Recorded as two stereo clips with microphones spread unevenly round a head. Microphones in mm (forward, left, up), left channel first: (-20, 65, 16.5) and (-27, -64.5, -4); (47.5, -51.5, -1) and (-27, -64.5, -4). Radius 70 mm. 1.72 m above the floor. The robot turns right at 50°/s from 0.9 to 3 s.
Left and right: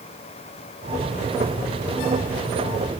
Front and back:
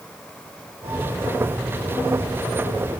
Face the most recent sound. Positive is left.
No sound to turn to.